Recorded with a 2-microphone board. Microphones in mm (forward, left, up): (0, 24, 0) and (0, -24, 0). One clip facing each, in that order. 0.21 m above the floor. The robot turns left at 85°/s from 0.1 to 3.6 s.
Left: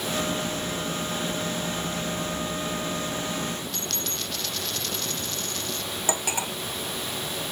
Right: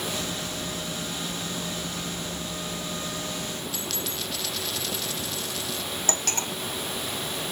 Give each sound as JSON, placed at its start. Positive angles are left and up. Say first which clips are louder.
{"t": 3.7, "sound": "a dropped coin", "louder": "even", "side_deg": -5}
{"t": 6.1, "sound": "cutlery clinking", "louder": "left 3 dB", "side_deg": 10}